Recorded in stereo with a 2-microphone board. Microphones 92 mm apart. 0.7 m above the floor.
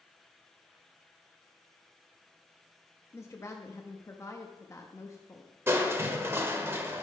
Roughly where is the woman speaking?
Left.